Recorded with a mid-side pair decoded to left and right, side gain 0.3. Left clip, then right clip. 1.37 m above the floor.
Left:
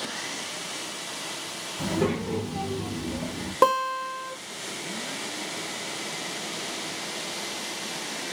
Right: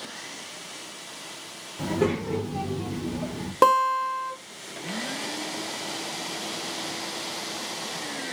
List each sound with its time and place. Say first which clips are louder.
1.8 s a child speaking: right 2 dB; 5° right, 1.2 m; by 3.5 s 60° right, 1.2 m
3.6 s a guitar: right 3 dB; 20° right, 1.0 m